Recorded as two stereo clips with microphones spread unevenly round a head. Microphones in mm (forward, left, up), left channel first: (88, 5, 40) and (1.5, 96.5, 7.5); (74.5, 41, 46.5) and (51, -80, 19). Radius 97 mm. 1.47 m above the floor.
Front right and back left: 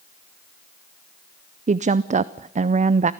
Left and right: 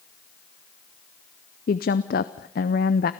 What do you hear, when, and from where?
1.7 s a woman speaking: 95° left, 0.5 m